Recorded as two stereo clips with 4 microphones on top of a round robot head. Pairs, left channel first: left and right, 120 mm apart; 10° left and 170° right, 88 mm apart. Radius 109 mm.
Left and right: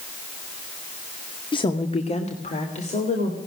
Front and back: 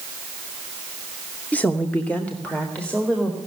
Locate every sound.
1.5 s a woman speaking: 70° left, 1.0 m; by 3.4 s 85° left, 2.5 m